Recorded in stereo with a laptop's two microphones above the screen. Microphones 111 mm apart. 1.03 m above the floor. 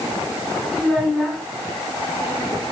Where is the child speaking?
Centre (ahead or behind), 5 m.